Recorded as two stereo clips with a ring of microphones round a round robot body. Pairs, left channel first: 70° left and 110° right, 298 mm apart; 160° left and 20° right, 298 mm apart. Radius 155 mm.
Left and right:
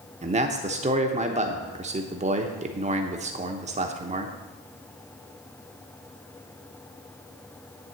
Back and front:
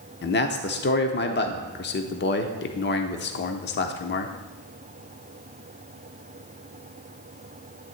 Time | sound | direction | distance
0.2 | a man speaking | 170° right | 0.9 m